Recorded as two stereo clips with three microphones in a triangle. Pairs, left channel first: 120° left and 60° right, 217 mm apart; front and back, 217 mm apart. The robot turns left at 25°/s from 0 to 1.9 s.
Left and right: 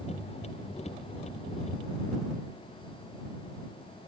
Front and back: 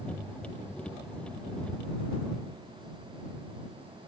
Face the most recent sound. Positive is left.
No sound to turn to.